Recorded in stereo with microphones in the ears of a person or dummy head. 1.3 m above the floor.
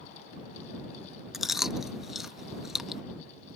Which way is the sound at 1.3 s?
Centre (ahead or behind).